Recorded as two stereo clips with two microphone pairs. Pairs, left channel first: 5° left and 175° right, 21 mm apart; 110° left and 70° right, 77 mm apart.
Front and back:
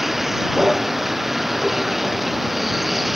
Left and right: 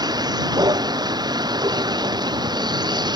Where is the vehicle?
95° right; by 3.2 s 90° right.